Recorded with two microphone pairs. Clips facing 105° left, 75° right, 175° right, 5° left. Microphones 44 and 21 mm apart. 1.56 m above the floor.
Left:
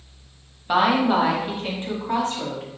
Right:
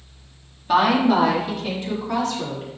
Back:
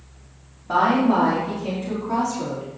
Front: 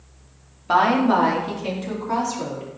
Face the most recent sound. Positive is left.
turn(degrees=55)